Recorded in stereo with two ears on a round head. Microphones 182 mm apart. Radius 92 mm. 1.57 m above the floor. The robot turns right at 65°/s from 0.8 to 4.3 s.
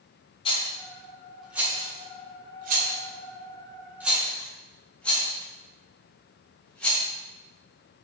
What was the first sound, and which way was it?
A rattle, 25° left (ahead or behind).